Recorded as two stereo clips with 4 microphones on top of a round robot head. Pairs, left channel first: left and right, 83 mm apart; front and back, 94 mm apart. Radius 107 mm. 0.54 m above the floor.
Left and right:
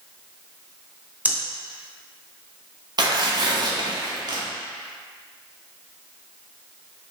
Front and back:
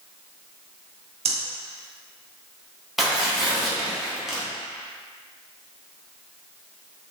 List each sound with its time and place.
1.2 s breathing: 165° right, 0.8 m
3.0 s tearing paper: 95° right, 1.0 m